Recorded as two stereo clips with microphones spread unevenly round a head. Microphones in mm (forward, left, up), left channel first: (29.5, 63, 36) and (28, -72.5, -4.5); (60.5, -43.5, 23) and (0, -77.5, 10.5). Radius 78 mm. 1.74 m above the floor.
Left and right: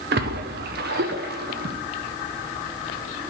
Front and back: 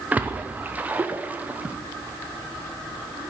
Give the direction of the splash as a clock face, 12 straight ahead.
3 o'clock.